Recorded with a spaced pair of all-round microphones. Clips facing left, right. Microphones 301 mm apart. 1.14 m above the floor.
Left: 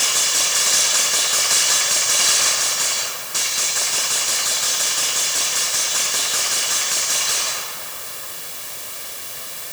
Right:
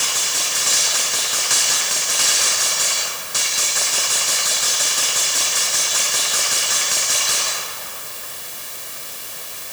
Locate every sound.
Only background noise.